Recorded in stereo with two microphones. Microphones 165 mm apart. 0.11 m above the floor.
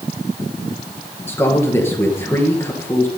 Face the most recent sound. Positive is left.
turn(degrees=15)  # may be behind; listen again after turning